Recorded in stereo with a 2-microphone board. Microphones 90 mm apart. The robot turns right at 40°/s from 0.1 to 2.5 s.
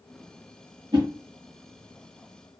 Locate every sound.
0.9 s a whoosh: 55° right (ahead or behind), 1.2 m; by 1.1 s 50° right (ahead or behind), 1.2 m